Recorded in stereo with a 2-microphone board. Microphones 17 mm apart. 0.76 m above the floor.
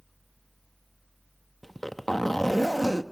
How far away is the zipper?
About 0.8 m.